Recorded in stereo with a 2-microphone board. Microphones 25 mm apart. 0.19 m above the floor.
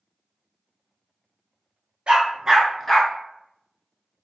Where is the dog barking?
55° right (ahead or behind), 1.0 m; by 3.1 s 20° left (ahead or behind), 1.0 m.